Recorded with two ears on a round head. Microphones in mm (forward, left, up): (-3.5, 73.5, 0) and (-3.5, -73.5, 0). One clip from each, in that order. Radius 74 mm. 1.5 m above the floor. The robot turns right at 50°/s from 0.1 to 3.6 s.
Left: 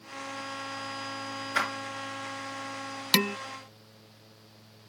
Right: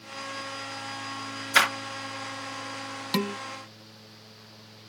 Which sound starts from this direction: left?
Dishes clattering, at 3.1 s.